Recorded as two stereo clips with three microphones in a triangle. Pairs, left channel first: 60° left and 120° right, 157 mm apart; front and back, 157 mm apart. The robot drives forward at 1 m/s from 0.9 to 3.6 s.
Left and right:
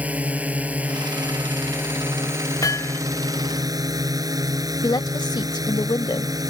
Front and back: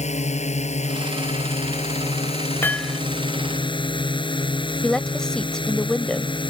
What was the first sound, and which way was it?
A drone, 40° right.